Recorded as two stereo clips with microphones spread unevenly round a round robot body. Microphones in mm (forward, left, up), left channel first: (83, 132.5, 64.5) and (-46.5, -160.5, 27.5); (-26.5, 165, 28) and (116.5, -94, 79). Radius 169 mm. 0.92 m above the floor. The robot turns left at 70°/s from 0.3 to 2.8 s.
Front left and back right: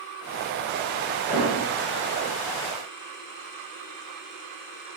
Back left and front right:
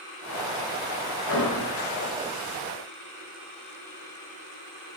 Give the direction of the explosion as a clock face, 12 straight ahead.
7 o'clock.